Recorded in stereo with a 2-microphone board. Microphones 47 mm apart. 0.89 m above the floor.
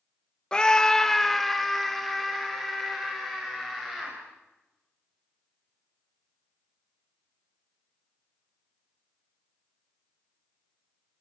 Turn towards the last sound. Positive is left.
turn(degrees=0)  # may be behind; listen again after turning